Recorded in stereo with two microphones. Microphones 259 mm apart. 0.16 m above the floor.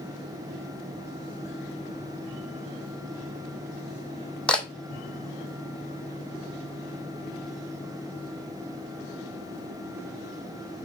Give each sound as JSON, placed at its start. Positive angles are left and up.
{"t": 4.5, "sound": "a camera shutter", "side_deg": 5, "distance_m": 1.0}